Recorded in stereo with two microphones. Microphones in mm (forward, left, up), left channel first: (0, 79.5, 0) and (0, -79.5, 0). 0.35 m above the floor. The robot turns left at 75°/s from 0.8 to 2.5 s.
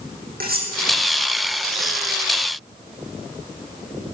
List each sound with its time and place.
0.4 s cutlery clinking: 75° right (ahead or behind), 10 m